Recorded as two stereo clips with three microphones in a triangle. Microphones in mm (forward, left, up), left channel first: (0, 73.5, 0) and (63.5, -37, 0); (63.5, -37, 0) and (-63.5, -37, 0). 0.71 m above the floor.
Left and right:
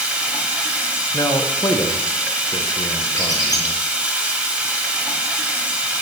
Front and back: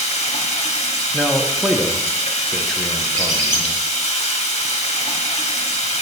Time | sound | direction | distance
0.0 | running water | 20° left | 1.4 m
1.1 | a man speaking | 85° left | 0.7 m
3.1 | a squeak | straight behind | 2.5 m